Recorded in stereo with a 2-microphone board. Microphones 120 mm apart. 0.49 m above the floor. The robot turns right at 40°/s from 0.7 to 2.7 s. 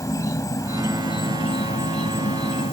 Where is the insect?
30° left; by 2.7 s 110° left.